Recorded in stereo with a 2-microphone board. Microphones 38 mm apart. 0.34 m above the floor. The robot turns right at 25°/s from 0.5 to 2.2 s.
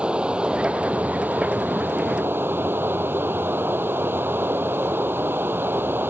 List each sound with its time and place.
0.0 s running water: 150° right; by 6.1 s 110° right